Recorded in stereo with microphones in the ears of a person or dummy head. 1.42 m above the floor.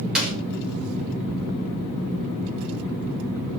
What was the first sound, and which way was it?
A clap, 5° right (ahead or behind).